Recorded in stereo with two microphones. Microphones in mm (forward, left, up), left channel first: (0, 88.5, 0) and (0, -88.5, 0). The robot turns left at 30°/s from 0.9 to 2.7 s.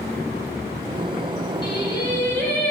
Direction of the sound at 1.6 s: 40° left.